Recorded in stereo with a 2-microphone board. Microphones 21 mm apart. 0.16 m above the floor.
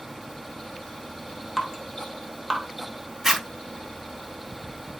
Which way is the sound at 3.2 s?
15° right (ahead or behind).